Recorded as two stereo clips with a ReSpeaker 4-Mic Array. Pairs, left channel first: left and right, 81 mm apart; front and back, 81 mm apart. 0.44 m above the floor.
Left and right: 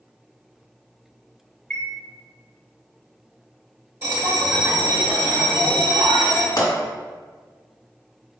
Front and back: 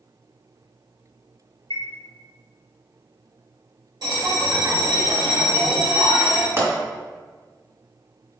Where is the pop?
120° left, 1.7 m.